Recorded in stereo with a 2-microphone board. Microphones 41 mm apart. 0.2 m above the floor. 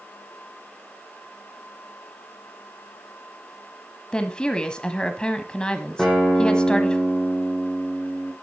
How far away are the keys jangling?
No keys jangling in this recording.